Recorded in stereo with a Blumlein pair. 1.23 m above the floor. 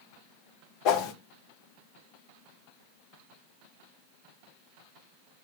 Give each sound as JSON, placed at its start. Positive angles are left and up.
{"t": 0.8, "sound": "a whoosh", "azimuth_deg": 40, "distance_m": 0.7}